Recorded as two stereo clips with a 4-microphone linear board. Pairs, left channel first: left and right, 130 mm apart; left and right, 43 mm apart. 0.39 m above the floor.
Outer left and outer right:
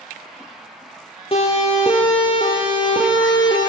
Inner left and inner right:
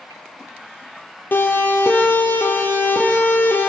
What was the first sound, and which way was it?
A siren, 45° left (ahead or behind).